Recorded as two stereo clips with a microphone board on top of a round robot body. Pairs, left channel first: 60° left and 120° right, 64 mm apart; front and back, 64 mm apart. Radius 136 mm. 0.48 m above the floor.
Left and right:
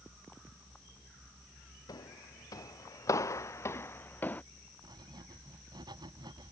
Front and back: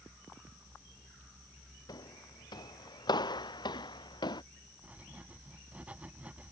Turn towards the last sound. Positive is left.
turn(degrees=-110)